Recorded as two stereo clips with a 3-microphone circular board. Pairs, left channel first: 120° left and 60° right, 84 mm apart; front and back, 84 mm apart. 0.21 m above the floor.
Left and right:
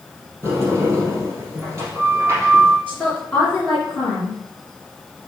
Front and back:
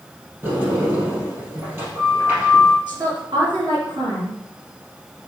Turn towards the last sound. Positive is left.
turn(degrees=-165)